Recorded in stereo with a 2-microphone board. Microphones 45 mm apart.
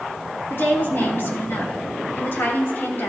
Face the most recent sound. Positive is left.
turn(degrees=50)  # may be behind; listen again after turning